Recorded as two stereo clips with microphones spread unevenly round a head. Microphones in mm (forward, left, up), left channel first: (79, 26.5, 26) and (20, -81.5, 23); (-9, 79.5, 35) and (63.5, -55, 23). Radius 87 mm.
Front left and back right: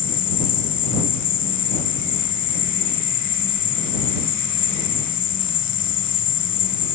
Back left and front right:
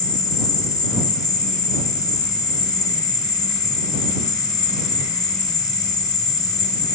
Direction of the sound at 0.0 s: 50° left.